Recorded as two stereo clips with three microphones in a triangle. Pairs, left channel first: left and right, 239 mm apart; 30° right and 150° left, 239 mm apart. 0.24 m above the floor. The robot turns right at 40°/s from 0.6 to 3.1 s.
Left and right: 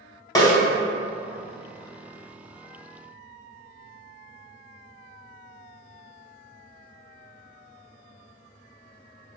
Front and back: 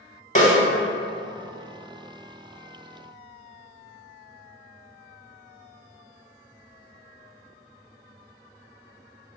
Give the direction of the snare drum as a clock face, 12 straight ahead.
11 o'clock.